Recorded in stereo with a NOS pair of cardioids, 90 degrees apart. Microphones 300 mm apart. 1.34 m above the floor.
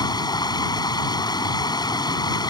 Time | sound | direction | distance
0.0 | running water | 15° left | ?